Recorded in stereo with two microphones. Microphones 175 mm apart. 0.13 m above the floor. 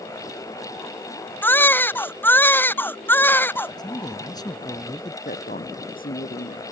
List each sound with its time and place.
1.4 s a baby crying: 10° left (ahead or behind)
3.8 s a man speaking: 25° left (ahead or behind)
5.2 s a woman speaking: 55° left (ahead or behind)